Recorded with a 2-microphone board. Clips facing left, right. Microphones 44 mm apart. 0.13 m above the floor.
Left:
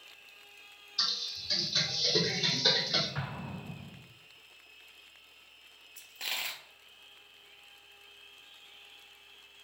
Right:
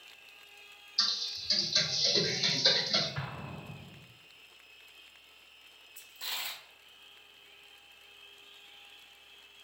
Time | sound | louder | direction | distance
1.0 | typing on a keyboard | right 1 dB | 45° left (ahead or behind) | 2.5 m
3.1 | an explosion | left 1 dB | 60° left (ahead or behind) | 2.5 m
6.0 | a dropped coin | left 3 dB | 60° left (ahead or behind) | 0.9 m